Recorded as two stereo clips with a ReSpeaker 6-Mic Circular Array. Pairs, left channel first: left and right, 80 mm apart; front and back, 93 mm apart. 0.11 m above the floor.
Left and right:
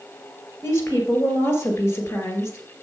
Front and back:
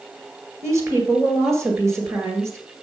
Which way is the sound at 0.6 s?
135° left.